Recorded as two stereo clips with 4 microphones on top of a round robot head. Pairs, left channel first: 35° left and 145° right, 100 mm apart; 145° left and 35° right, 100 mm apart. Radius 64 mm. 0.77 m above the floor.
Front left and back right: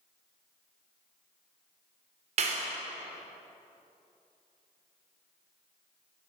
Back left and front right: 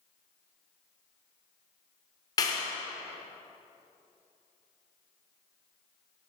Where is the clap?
160° right, 1.6 m.